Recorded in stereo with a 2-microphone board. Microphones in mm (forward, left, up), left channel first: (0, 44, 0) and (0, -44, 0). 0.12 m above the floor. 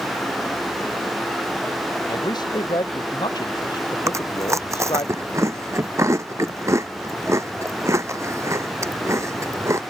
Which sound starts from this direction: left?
A man speaking, at 2.1 s.